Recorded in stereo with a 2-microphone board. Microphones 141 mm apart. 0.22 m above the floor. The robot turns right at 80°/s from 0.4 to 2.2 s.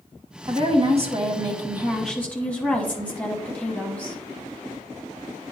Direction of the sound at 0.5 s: 125° right.